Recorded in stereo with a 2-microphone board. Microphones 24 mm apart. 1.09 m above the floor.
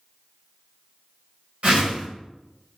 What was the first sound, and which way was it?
A whoosh, 65° right (ahead or behind).